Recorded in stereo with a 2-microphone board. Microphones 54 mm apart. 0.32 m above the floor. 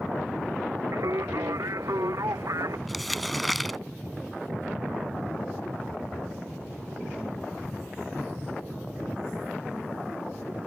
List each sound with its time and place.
0.9 s singing: 75° right (ahead or behind)
2.9 s crumpling: centre (ahead or behind)